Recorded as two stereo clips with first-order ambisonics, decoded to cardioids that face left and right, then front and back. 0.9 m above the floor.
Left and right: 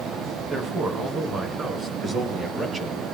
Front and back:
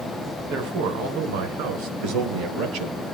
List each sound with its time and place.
0.5 s a man speaking: 155° right, 3 m; by 3.0 s 160° right, 4.5 m